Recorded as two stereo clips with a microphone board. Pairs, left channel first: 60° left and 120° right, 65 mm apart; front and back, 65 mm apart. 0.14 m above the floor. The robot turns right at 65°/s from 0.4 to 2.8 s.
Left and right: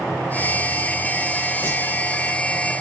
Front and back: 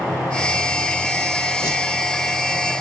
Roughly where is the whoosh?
Ahead.